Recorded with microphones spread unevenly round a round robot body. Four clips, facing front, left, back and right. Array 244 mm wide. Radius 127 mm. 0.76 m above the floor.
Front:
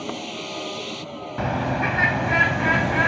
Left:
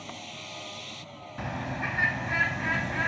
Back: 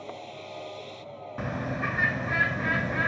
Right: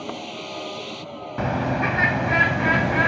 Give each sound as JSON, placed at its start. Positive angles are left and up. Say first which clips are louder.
{"t": 0.0, "sound": "a vehicle", "louder": "right 10 dB, front 8 dB", "azimuth_deg": -40}
{"t": 1.4, "sound": "a bird", "louder": "right 11 dB, front 8 dB", "azimuth_deg": -60}